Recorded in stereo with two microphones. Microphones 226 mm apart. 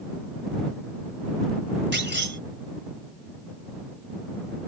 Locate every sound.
1.9 s a clunk: 50° right (ahead or behind)